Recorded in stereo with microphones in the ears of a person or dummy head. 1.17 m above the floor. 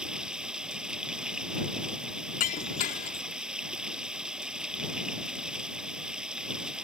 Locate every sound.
0.0 s running water: 5° right (ahead or behind)
2.4 s breaking glass: 40° left (ahead or behind)